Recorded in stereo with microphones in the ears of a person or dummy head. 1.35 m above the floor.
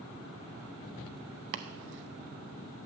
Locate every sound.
1.5 s chopping: 55° right (ahead or behind), 0.8 m